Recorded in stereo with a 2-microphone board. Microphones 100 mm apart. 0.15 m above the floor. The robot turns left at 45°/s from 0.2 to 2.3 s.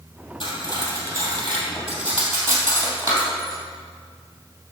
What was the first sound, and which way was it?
Cutlery clinking, 60° left (ahead or behind).